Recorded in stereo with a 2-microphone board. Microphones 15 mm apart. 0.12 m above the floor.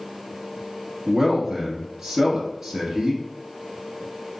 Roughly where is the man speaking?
Right.